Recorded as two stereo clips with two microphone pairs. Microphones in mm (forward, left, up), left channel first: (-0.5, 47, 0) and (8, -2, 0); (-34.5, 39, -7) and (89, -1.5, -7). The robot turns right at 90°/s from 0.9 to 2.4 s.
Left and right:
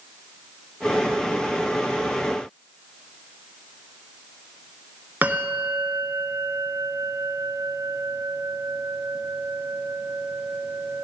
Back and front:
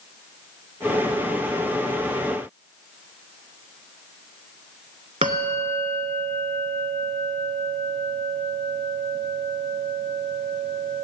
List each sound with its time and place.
5.2 s a bell: 30° right, 0.9 m